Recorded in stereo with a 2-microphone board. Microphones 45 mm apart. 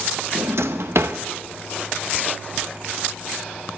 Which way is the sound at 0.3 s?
65° right (ahead or behind).